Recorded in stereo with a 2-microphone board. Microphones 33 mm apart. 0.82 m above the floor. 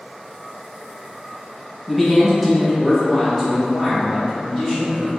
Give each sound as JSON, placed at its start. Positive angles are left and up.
{"t": 1.9, "sound": "a man speaking", "side_deg": 0, "distance_m": 1.2}